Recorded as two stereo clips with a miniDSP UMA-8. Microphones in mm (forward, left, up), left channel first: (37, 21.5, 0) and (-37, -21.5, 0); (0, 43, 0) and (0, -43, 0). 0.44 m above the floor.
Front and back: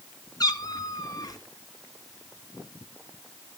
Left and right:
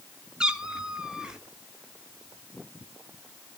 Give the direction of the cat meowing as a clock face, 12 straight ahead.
12 o'clock.